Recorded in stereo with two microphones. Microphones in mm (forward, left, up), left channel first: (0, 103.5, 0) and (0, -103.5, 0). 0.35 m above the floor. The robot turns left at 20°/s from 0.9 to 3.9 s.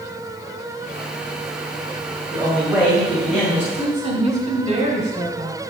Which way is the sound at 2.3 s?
15° right (ahead or behind).